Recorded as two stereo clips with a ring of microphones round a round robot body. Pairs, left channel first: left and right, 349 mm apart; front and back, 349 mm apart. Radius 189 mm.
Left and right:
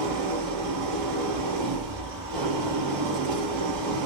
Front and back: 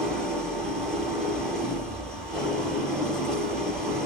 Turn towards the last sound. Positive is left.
turn(degrees=-90)